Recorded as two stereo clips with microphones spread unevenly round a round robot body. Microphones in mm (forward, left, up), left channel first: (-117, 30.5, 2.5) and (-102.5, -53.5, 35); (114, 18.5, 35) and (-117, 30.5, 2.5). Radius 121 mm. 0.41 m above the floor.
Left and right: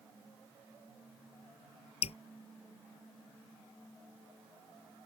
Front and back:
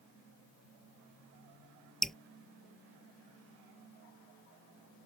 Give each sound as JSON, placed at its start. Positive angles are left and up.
{"t": 2.0, "sound": "dripping", "azimuth_deg": 85}